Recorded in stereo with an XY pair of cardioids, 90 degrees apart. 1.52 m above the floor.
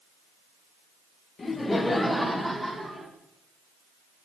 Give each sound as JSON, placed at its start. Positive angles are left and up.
{"t": 1.4, "sound": "laughter", "azimuth_deg": 40, "distance_m": 1.0}